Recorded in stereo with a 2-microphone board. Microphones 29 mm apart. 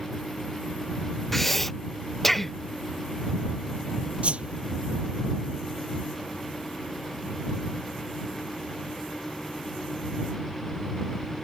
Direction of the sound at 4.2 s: 45° right (ahead or behind).